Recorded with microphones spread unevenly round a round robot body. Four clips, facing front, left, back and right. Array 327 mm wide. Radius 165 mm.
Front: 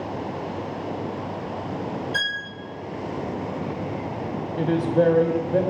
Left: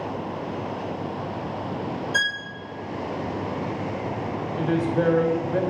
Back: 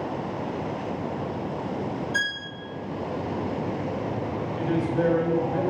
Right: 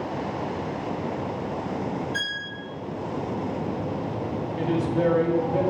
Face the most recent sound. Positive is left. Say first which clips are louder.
# left 1 dB, front 5 dB
turn(degrees=10)